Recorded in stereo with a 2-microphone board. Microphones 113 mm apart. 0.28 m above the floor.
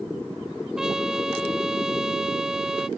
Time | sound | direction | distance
0.8 | a trumpet | 5° right (ahead or behind) | ?